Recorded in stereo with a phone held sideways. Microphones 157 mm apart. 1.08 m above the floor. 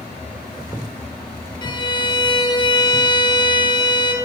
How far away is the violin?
About 0.6 m.